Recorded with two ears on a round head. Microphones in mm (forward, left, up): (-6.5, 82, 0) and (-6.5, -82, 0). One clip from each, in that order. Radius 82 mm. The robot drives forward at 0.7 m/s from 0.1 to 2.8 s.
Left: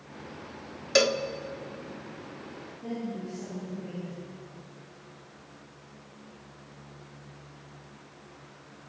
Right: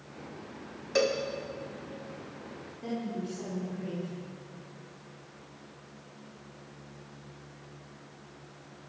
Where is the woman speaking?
75° right (ahead or behind), 7.5 m.